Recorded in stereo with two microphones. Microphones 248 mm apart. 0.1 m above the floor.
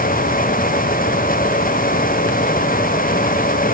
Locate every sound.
Only background noise.